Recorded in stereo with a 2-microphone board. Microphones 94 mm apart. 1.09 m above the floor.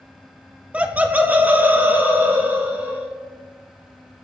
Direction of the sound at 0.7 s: 15° right (ahead or behind).